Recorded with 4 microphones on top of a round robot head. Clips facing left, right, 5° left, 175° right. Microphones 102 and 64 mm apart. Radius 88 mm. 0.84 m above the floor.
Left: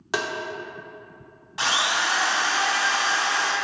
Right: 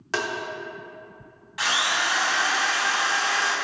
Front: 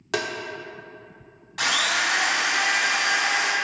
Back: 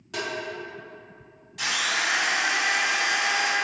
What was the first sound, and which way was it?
Tapping, 15° left.